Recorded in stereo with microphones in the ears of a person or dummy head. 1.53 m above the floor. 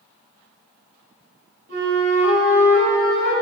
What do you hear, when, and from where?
1.7 s a flute: 55° right (ahead or behind), 2 m